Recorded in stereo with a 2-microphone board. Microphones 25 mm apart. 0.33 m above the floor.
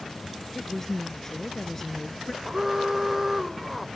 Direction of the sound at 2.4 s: 15° right (ahead or behind).